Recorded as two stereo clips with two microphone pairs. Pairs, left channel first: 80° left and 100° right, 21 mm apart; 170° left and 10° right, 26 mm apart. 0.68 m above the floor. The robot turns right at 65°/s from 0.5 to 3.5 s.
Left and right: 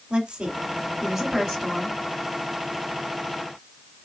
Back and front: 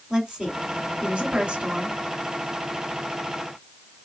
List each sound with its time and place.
0.1 s a woman speaking: 65° right, 2.5 m; by 2.0 s 30° left, 2.5 m